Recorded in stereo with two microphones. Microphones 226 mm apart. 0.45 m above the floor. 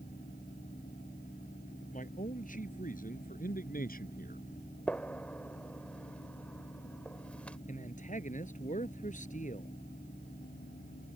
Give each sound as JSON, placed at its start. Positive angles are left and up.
{"t": 1.9, "sound": "a man speaking", "side_deg": 35}
{"t": 4.9, "sound": "a gunshot", "side_deg": 5}
{"t": 7.7, "sound": "a man speaking", "side_deg": 35}